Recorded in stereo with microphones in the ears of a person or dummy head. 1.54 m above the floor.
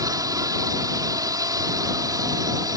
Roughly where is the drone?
Centre.